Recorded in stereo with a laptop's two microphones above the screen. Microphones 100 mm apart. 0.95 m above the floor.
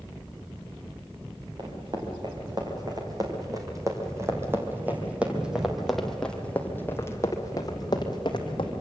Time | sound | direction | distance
1.6 | running footsteps | 50° right (ahead or behind) | 4 m